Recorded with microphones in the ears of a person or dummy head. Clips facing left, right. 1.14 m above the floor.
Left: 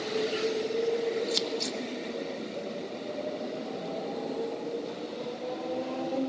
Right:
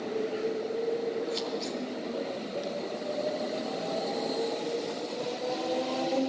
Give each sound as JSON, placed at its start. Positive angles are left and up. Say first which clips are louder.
{"t": 1.3, "sound": "scissors", "louder": "left 1 dB", "side_deg": 60, "distance_m": 1.1}